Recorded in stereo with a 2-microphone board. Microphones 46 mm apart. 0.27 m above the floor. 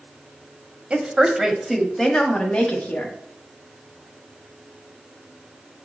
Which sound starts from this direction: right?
A woman speaking, at 0.9 s.